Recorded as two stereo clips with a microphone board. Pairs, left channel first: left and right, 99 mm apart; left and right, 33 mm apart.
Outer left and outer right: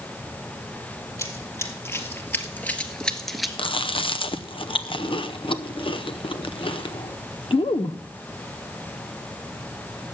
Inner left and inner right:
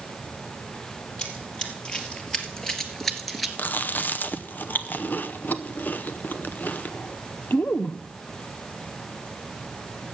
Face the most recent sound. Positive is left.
turn(degrees=55)  # may be behind; listen again after turning